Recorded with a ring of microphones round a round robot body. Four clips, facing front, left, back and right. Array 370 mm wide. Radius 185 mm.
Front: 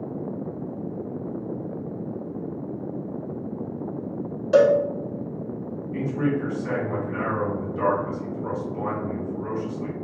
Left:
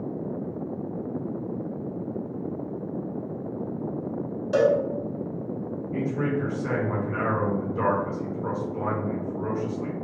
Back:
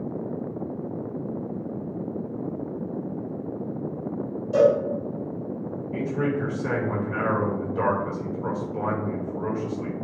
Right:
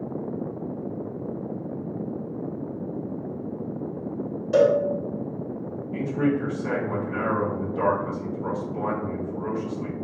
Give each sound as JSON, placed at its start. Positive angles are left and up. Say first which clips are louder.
{"t": 4.5, "sound": "a cowbell", "louder": "right 2 dB, front 2 dB", "azimuth_deg": 10, "distance_m": 0.8}
{"t": 5.9, "sound": "a man speaking", "louder": "right 3 dB, front 1 dB", "azimuth_deg": 170, "distance_m": 1.8}